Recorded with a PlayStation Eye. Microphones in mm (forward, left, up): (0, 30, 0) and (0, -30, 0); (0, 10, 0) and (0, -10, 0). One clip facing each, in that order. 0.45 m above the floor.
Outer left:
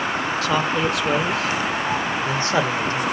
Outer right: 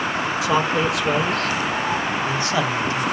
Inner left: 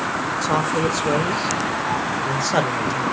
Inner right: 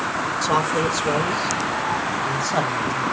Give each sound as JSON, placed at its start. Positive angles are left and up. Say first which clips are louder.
{"t": 0.4, "sound": "a man speaking", "louder": "outer right 2 dB, even", "side_deg": -15, "distance_m": 1.6}